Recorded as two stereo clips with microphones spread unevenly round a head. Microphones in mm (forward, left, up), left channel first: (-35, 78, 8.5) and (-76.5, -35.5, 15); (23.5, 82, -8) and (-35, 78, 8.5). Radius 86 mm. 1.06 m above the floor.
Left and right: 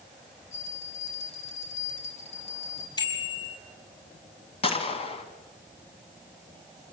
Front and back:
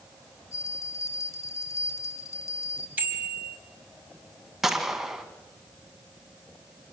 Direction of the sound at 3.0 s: 125° left.